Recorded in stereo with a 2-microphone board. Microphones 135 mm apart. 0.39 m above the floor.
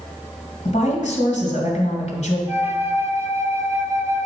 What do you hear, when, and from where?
0.7 s a woman speaking: 60° left (ahead or behind), 2.0 m
2.5 s a flute: 20° right (ahead or behind), 0.6 m